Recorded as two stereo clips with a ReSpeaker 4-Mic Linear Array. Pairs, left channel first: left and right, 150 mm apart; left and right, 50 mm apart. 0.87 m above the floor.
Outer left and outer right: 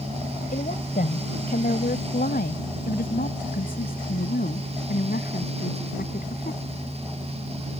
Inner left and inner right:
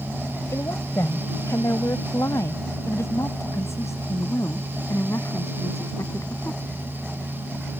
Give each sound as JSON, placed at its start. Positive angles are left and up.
{"t": 0.5, "sound": "a woman speaking", "side_deg": 70}